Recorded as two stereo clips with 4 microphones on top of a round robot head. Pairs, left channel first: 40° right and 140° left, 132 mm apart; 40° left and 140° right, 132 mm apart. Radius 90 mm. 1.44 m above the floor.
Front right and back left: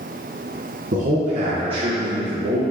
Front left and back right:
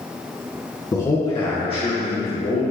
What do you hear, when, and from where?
0.9 s a man speaking: 105° left, 1.2 m; by 2.6 s 75° left, 1.7 m